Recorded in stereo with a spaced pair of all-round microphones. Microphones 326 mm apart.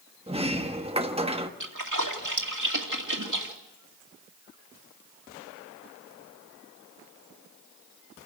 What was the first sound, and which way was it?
A sliding door, 20° right (ahead or behind).